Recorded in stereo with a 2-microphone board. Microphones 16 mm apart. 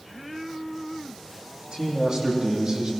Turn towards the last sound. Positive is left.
turn(degrees=-50)  # may be behind; listen again after turning